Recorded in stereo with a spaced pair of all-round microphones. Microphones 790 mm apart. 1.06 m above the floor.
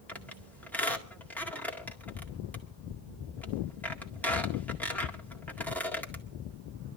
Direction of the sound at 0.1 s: Centre (ahead or behind).